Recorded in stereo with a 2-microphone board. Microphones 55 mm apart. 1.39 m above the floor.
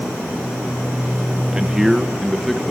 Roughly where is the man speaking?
Centre.